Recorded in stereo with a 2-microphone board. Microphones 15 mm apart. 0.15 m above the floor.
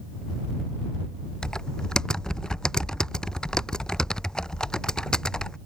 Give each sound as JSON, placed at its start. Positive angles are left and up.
{"t": 1.4, "sound": "typing on a keyboard", "side_deg": 50}